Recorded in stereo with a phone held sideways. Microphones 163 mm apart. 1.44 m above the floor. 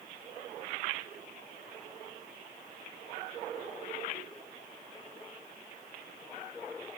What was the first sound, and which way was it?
Only background noise.